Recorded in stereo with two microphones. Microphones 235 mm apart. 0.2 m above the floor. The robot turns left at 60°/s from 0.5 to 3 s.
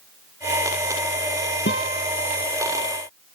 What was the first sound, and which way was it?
A guitar, 55° left (ahead or behind).